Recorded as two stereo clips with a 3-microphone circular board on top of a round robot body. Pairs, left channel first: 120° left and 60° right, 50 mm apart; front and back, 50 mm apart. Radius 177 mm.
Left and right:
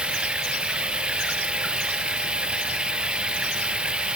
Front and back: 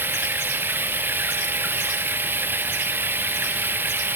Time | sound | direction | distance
0.0 | running water | 130° right | ?